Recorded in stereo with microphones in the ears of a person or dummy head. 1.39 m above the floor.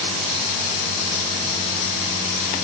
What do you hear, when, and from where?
Only background noise.